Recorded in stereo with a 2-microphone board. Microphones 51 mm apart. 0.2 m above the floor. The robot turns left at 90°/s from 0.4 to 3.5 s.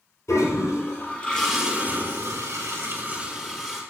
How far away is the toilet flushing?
About 4.5 m.